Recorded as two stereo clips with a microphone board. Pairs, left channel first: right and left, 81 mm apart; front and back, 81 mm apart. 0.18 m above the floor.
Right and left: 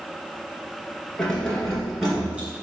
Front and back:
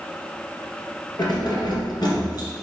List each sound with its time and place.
1.2 s keys jangling: 10° right, 1.6 m; by 2.5 s 20° left, 1.6 m